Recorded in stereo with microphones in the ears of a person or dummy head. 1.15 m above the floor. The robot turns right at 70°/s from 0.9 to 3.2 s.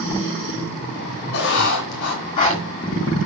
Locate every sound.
1.3 s writing: 60° left, 2 m; by 2.6 s 155° left, 2 m